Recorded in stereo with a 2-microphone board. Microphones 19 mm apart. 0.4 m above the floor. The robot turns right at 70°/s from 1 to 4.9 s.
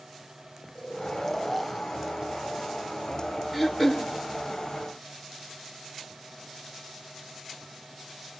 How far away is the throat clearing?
About 1.9 m.